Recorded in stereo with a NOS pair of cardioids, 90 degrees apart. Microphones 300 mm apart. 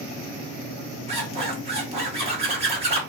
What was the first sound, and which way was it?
A zipper, 20° right.